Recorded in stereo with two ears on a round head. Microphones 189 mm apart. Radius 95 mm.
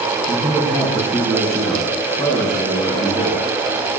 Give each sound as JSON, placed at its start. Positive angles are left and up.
{"t": 0.3, "sound": "a man speaking", "side_deg": 10, "distance_m": 5.0}